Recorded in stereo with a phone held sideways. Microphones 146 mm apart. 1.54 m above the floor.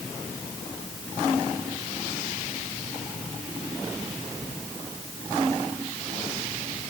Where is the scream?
No scream in this recording.